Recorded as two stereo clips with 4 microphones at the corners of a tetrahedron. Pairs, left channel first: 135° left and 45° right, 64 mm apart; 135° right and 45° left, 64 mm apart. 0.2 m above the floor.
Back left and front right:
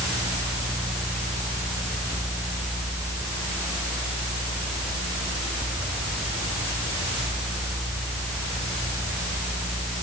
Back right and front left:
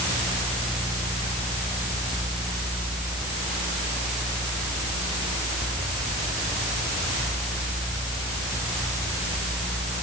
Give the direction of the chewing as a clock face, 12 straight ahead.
No chewing in this recording.